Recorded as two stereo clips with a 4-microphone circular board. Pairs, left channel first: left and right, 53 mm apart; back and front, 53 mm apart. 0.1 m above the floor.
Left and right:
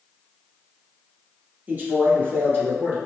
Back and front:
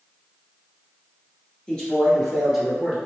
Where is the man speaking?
120° right, 1.9 m; by 3.0 s 80° right, 2 m.